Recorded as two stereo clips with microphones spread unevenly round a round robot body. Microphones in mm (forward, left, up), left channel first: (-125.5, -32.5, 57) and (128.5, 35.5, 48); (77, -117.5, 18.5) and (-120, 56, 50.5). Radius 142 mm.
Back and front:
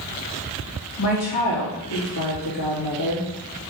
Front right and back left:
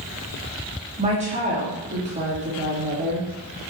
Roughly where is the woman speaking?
Behind right.